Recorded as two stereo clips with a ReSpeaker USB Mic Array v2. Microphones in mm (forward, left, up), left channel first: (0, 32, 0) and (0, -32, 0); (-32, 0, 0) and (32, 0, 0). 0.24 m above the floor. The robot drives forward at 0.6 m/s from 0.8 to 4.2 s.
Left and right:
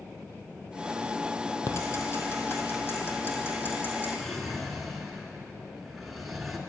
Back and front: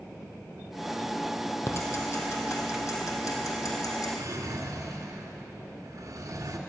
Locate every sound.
1.7 s ticking: 130° left, 2.5 m; by 4.1 s 150° left, 3.5 m
4.2 s a drawer: straight ahead, 1.5 m